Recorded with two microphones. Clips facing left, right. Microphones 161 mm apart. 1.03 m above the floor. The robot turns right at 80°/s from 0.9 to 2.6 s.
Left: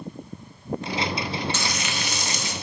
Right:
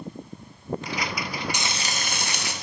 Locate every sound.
1.5 s frying: 165° right, 0.6 m; by 2.5 s 85° right, 0.6 m